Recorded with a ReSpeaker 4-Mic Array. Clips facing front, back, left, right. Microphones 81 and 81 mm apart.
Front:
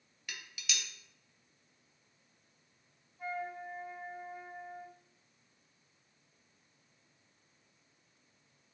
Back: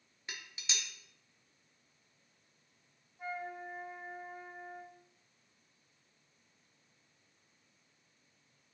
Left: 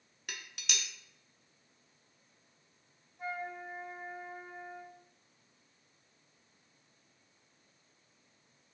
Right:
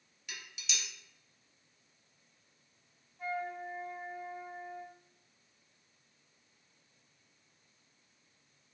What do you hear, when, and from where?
0.3 s dishes clattering: 120° left, 0.5 m
3.2 s a flute: 140° left, 0.9 m